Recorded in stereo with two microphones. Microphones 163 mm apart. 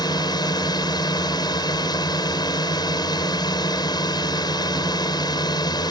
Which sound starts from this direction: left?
A drone, at 0.0 s.